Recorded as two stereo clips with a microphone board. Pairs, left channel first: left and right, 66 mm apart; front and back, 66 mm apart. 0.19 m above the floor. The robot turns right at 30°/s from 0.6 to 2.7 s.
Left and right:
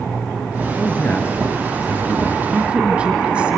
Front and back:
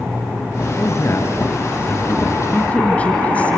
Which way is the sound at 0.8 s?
30° left.